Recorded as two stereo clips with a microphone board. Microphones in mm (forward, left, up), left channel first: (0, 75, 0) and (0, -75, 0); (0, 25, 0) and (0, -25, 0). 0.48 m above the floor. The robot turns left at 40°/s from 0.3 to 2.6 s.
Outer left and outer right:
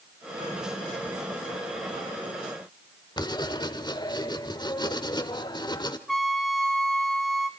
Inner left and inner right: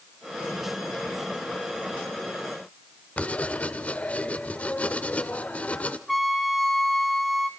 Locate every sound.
3.2 s writing: 30° left (ahead or behind), 1.3 m
6.1 s a trumpet: centre (ahead or behind), 1.2 m